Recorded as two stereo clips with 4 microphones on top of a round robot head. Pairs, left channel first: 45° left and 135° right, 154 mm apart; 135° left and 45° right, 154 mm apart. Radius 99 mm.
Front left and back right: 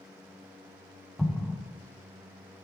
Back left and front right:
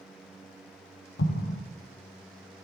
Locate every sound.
1.2 s an explosion: 135° left, 0.8 m